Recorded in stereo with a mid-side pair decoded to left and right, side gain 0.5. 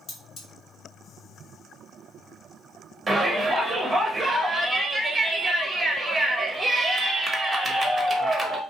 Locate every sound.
0.1 s cutlery clinking: 45° left, 1.5 m
3.1 s a shout: 20° right, 0.9 m